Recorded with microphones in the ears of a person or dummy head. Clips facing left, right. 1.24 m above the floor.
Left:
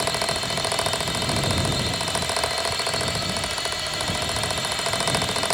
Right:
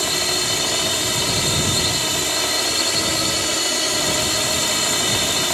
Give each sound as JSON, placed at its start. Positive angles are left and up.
{"t": 0.0, "sound": "a drone", "side_deg": -60}